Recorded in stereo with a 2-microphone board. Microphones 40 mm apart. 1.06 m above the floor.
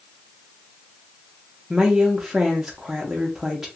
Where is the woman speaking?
10° right (ahead or behind), 0.7 m.